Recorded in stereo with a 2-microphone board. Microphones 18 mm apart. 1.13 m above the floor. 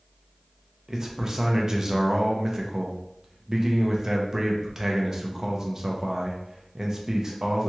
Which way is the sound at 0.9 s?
30° right (ahead or behind).